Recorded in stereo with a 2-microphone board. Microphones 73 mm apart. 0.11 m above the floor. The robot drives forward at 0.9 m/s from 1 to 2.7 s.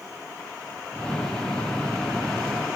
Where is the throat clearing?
No throat clearing in this recording.